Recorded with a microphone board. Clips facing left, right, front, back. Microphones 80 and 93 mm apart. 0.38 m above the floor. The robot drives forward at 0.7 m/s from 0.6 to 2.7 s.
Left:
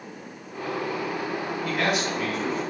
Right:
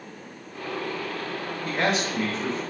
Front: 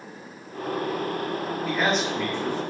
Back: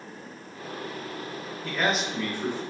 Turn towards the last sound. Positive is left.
turn(degrees=-130)